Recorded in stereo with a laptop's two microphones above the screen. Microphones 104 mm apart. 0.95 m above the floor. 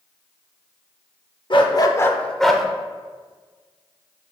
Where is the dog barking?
50° left (ahead or behind), 0.8 m; by 2.6 s 5° right (ahead or behind), 1.0 m.